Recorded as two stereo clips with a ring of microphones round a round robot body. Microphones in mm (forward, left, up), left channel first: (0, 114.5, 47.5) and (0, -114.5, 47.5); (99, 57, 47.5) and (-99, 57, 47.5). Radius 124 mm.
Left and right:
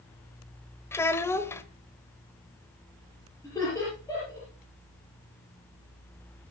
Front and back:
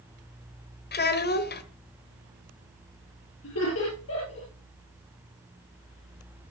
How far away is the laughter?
About 7 m.